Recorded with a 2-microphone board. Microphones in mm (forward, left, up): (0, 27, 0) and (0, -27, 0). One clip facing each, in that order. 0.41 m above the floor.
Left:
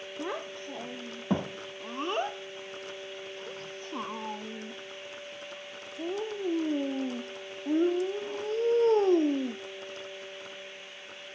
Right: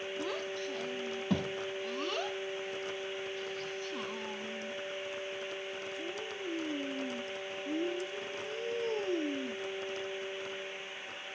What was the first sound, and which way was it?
A child speaking, 25° left (ahead or behind).